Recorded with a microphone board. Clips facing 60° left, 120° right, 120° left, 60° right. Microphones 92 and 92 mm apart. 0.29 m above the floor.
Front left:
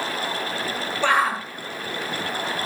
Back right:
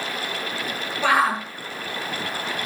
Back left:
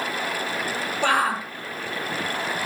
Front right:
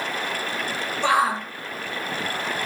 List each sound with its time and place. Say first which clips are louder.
1.0 s a shout: back right 1 dB, front right 2 dB; 155° left, 6 m